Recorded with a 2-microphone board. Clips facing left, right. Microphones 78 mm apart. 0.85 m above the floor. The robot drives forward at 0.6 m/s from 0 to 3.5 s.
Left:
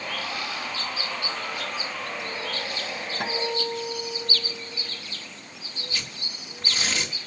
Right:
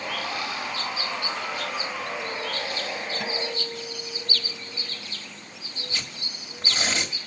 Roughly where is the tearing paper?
Right.